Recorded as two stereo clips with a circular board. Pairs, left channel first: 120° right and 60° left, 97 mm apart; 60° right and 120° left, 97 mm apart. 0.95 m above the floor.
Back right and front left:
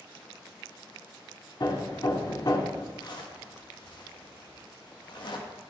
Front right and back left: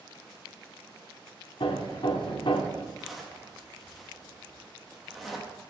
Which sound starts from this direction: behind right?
A zipper, at 3.0 s.